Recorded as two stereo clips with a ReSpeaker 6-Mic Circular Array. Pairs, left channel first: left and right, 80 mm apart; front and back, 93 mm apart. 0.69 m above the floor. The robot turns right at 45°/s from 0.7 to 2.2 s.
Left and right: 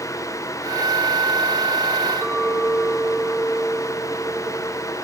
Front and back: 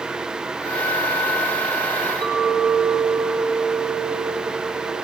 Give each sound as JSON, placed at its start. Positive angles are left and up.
{"t": 2.2, "sound": "a clink", "azimuth_deg": -140, "distance_m": 1.6}